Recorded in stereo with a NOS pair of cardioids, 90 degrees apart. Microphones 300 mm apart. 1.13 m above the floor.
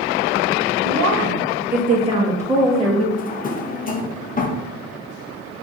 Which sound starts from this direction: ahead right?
A woman speaking, at 0.8 s.